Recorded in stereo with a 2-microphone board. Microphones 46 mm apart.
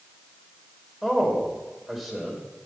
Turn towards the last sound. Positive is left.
turn(degrees=-5)  # may be behind; listen again after turning